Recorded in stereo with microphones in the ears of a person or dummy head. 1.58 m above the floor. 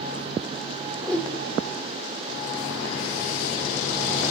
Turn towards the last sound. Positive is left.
turn(degrees=5)  # may be behind; listen again after turning